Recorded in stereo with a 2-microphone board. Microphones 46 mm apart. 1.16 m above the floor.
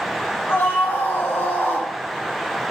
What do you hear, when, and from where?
0.5 s a scream: 85° left, 4 m; by 1.9 s 65° left (ahead or behind), 2.5 m